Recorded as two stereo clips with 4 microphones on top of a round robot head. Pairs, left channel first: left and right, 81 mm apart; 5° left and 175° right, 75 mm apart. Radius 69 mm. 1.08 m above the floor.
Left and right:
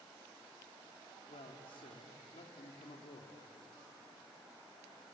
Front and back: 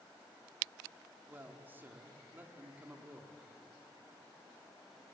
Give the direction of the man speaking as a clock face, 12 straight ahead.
8 o'clock.